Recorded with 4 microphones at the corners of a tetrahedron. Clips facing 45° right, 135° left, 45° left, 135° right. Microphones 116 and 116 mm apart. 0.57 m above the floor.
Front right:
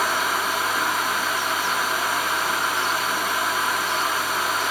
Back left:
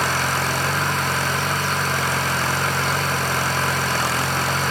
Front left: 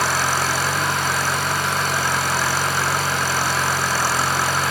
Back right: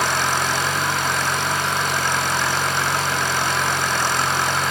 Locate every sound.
0.0 s an engine running: 130° left